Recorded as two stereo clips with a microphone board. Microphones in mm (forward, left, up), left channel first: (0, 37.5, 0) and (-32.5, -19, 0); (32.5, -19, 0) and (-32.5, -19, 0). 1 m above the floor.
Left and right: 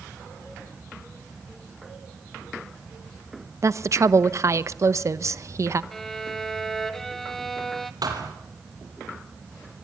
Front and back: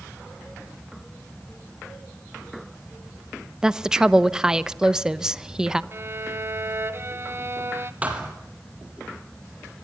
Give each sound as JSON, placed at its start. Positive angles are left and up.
{"t": 3.6, "sound": "a woman speaking", "azimuth_deg": -105, "distance_m": 0.9}
{"t": 5.9, "sound": "a violin", "azimuth_deg": 145, "distance_m": 1.1}
{"t": 8.0, "sound": "a thud", "azimuth_deg": -115, "distance_m": 4.5}